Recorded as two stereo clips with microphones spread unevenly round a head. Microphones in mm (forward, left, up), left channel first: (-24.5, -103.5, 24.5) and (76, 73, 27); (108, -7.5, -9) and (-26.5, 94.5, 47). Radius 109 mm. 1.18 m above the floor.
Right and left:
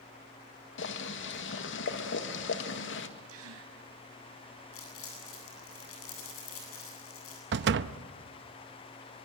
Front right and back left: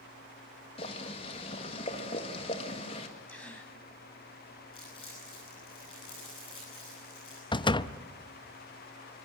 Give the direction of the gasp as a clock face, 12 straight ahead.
10 o'clock.